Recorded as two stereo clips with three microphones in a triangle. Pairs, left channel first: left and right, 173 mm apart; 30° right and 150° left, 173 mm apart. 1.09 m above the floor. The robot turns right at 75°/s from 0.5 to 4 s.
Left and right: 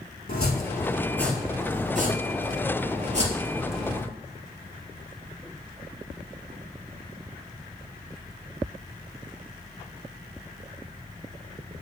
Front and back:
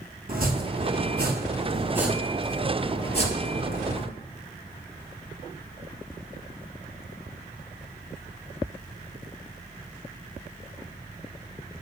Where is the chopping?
115° left, 4.5 m; by 4.1 s 20° left, 4.5 m.